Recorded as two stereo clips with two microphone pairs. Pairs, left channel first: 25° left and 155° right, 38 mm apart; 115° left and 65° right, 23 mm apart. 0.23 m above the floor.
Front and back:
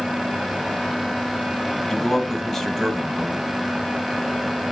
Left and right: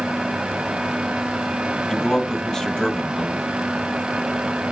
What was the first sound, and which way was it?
A man speaking, 95° left.